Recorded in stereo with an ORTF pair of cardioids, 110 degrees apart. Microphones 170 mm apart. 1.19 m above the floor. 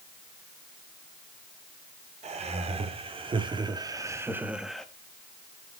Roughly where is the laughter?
Ahead right.